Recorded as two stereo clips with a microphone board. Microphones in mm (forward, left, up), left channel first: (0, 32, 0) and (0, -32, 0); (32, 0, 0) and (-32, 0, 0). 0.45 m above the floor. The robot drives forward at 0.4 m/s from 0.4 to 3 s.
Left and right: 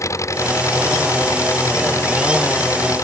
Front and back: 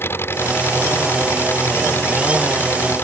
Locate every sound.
0.0 s an engine running: 50° left